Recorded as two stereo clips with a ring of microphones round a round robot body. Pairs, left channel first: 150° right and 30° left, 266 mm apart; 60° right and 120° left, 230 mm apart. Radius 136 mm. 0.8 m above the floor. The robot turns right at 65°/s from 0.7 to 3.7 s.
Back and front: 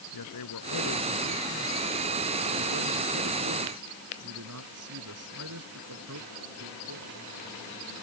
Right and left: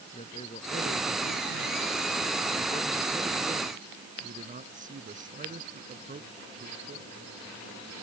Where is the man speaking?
130° right; by 7.1 s 65° left.